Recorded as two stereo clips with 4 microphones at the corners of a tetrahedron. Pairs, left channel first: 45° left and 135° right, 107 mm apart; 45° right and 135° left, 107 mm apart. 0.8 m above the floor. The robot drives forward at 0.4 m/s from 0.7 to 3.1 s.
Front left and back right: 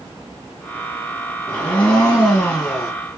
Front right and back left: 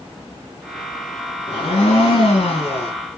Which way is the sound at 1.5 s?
35° right.